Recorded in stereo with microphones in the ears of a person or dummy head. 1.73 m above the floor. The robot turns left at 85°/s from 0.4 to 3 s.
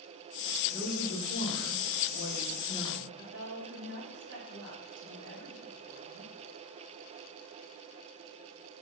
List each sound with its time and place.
0.7 s a woman speaking: 170° right, 1.2 m; by 3.1 s 10° right, 1.2 m
3.2 s a woman speaking: 65° right (ahead or behind), 3 m